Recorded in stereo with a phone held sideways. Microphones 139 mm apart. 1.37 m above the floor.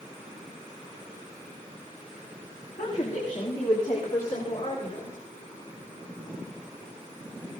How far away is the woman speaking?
About 2.5 m.